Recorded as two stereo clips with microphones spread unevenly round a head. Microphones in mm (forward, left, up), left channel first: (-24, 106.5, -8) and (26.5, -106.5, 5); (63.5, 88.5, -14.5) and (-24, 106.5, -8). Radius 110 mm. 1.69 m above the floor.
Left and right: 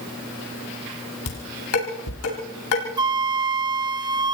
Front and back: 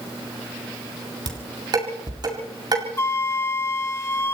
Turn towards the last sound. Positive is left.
turn(degrees=-45)